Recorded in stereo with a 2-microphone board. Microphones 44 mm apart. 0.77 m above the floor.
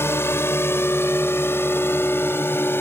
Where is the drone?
65° left (ahead or behind); by 2.8 s 55° left (ahead or behind).